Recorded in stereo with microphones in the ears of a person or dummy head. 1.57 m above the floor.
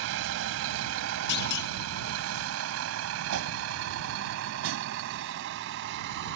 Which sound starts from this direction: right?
A vehicle, at 0.0 s.